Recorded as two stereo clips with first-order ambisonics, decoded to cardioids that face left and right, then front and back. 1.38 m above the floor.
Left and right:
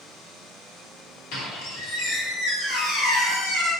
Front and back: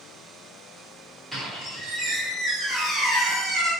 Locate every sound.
1.3 s a squeak: 95° left, 1.1 m